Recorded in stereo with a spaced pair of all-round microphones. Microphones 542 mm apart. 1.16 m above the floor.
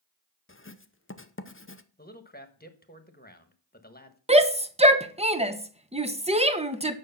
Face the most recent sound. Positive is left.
turn(degrees=-10)  # may be behind; listen again after turning